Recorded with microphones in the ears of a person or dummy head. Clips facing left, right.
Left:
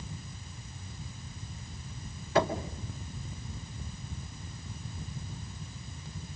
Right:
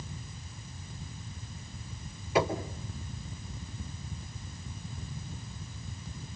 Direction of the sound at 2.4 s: 10° right (ahead or behind).